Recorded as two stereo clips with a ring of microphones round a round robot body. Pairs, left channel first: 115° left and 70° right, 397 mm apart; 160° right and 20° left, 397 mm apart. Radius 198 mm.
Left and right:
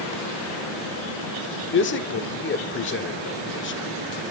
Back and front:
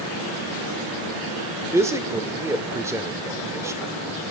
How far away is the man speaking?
About 1.5 m.